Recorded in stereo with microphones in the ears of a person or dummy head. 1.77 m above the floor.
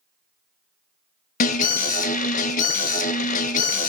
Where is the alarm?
40° left (ahead or behind), 0.6 m.